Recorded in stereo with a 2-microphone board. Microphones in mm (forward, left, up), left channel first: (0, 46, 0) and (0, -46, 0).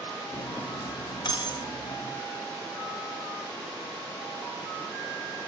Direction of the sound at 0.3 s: 50° left (ahead or behind).